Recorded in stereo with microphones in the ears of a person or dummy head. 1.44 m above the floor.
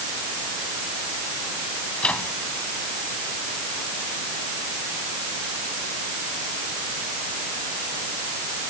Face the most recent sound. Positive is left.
turn(degrees=5)  # may be behind; listen again after turning